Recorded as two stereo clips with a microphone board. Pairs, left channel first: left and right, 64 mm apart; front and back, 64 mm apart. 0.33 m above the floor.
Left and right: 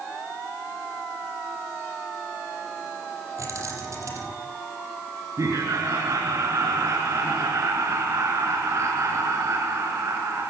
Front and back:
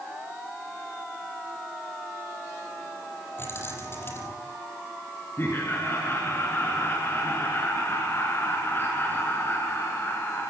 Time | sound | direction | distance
3.4 | keys jangling | 55° right | 6.5 m
5.4 | laughter | 55° right | 5 m